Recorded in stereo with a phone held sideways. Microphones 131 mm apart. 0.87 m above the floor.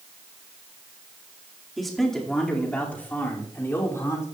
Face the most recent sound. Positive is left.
turn(degrees=25)  # may be behind; listen again after turning